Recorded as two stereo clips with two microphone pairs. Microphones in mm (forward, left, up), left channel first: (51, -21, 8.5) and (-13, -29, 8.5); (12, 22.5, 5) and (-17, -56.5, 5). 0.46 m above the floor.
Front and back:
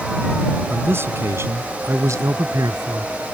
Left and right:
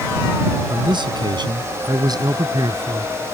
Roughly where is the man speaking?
Behind right.